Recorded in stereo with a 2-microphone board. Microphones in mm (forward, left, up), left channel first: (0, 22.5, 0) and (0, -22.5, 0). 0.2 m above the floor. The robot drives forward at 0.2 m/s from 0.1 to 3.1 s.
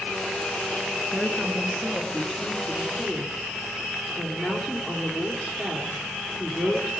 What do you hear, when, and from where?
1.1 s a woman speaking: centre (ahead or behind), 2.5 m